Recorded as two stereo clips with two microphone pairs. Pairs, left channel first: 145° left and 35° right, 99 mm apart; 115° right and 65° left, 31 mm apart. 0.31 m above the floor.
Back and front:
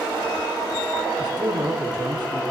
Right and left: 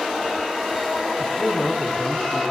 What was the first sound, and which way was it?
A man speaking, 70° right.